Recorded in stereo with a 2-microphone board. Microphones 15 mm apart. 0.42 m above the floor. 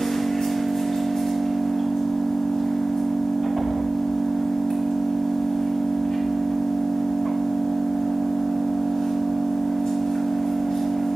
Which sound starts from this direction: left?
An engine running, at 0.0 s.